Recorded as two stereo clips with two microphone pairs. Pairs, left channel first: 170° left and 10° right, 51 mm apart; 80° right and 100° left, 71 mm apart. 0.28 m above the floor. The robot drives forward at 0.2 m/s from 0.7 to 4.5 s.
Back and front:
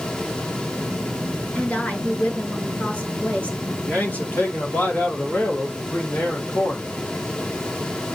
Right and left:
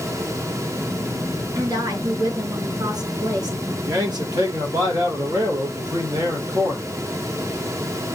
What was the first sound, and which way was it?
A woman speaking, 110° left.